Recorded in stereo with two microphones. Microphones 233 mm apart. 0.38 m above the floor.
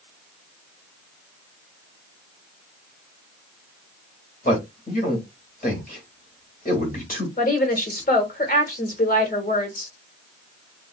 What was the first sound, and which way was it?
A man speaking, 40° left (ahead or behind).